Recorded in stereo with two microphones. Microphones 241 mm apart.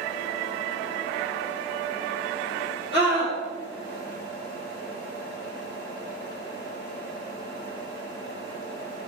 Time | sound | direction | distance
2.9 | a scream | 20° right (ahead or behind) | 4 m